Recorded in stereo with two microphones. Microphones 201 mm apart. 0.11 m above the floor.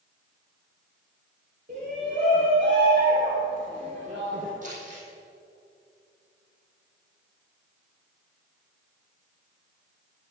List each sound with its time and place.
1.7 s a shout: 45° right (ahead or behind), 2.5 m
4.6 s crumpling: 40° right (ahead or behind), 4 m